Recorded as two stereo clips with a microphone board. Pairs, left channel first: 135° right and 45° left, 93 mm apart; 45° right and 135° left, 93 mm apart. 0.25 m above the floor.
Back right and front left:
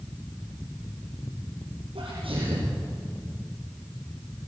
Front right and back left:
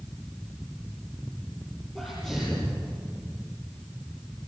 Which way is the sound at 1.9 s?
40° left.